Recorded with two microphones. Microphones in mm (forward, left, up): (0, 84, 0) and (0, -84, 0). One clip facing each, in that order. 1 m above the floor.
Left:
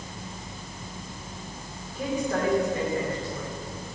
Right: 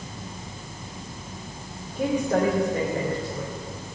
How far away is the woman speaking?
About 3 m.